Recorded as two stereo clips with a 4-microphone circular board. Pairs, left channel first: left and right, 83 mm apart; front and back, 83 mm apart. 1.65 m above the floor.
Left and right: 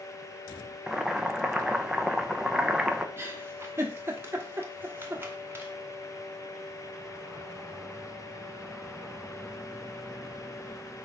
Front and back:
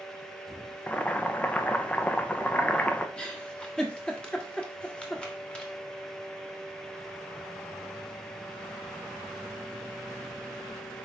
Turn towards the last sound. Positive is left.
turn(degrees=-65)